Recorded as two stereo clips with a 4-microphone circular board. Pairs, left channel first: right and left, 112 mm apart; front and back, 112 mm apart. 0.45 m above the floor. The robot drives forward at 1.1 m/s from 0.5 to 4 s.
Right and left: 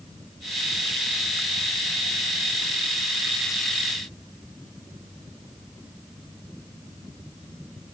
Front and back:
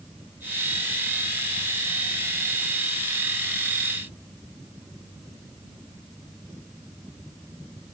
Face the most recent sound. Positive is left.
No sound to turn to.